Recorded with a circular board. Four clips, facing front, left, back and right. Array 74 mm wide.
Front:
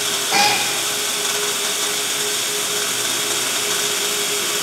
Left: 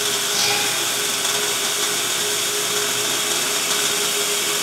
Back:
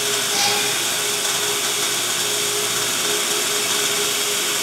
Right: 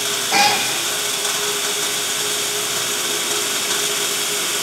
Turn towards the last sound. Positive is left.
turn(degrees=-50)